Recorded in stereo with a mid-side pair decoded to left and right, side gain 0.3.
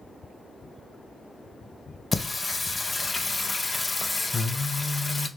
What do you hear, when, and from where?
2.1 s singing: 30° left, 0.6 m